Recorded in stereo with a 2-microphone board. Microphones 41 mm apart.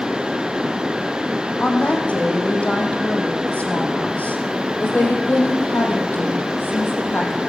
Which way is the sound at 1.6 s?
30° left (ahead or behind).